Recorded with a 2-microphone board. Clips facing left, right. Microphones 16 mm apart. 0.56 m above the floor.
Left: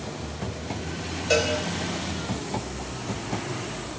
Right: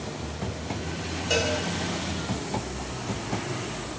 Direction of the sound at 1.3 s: 50° left (ahead or behind).